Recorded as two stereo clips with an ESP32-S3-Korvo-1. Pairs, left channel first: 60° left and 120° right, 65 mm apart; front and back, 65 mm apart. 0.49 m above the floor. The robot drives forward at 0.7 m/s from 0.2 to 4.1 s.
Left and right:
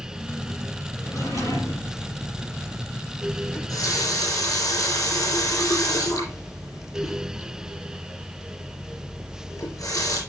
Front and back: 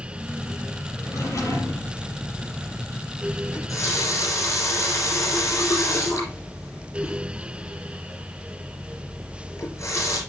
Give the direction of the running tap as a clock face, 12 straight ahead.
11 o'clock.